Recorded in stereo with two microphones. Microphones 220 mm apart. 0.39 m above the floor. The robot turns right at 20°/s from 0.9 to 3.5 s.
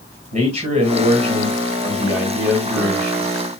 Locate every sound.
0.3 s a man speaking: 50° right, 2 m; by 3.3 s straight ahead, 2 m